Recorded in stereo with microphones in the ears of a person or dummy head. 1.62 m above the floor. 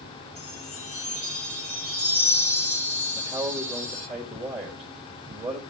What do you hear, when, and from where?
0.3 s a chime: 10° right (ahead or behind), 9.5 m
3.1 s a man speaking: 25° right (ahead or behind), 2.5 m